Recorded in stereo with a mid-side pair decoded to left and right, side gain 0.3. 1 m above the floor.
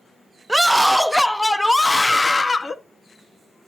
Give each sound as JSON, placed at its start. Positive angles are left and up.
{"t": 0.5, "sound": "a scream", "azimuth_deg": -15, "distance_m": 1.1}